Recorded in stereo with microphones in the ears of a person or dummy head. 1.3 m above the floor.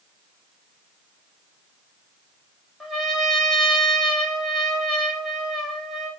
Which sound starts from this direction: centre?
A trumpet, at 2.8 s.